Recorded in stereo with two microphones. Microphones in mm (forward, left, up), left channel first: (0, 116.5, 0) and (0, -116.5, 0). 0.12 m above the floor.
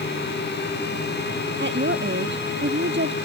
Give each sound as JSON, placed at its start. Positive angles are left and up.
{"t": 1.6, "sound": "a woman speaking", "side_deg": -55}